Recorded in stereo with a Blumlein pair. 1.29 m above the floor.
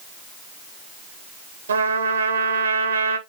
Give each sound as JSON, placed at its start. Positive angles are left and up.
{"t": 1.7, "sound": "a trumpet", "azimuth_deg": -70, "distance_m": 1.0}